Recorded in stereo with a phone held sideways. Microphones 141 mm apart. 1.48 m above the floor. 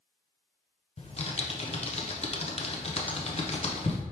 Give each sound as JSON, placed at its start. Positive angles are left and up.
{"t": 1.0, "sound": "typing on a keyboard", "side_deg": 50, "distance_m": 0.6}